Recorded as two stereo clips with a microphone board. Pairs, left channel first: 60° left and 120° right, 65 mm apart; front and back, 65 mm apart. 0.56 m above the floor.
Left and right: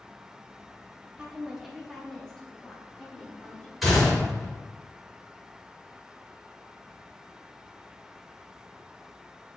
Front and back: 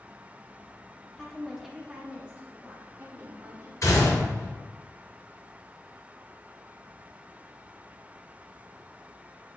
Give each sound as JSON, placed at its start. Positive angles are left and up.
{"t": 1.2, "sound": "a woman speaking", "azimuth_deg": -60, "distance_m": 0.7}
{"t": 3.8, "sound": "a gunshot", "azimuth_deg": -30, "distance_m": 1.5}